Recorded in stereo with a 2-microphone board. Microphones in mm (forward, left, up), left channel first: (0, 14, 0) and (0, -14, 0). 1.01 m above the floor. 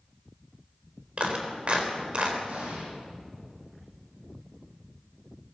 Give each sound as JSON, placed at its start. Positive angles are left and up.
{"t": 1.2, "sound": "a clap", "side_deg": -40, "distance_m": 3.5}
{"t": 2.5, "sound": "an explosion", "side_deg": -60, "distance_m": 8.5}